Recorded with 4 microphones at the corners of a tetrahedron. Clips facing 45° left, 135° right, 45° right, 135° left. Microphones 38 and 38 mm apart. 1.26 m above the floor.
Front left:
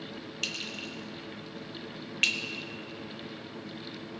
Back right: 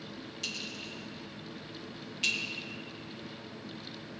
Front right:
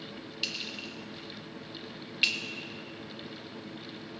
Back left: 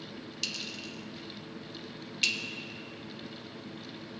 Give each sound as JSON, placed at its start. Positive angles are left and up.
{"t": 0.4, "sound": "a clink", "azimuth_deg": 25, "distance_m": 0.8}